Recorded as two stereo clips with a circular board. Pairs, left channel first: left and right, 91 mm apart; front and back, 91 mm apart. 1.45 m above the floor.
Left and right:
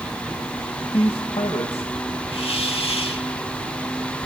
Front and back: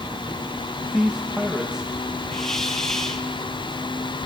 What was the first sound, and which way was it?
A man speaking, 100° left.